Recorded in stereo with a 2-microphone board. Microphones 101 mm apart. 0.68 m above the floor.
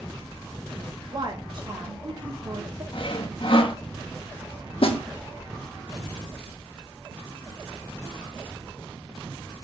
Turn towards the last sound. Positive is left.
turn(degrees=60)  # may be behind; listen again after turning